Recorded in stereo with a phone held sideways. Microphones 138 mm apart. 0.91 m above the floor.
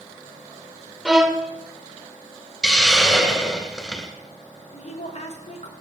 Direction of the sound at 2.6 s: 5° left (ahead or behind).